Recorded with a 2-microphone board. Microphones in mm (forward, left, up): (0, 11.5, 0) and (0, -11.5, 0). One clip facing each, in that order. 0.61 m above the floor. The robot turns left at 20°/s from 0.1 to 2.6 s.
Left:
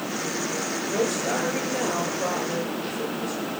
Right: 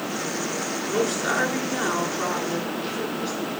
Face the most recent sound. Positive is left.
turn(degrees=-130)